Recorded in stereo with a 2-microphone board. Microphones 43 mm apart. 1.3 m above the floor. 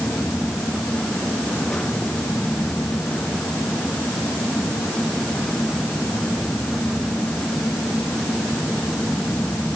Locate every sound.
Only background noise.